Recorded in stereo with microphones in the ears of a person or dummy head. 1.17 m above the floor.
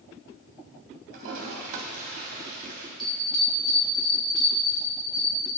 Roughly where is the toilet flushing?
Right.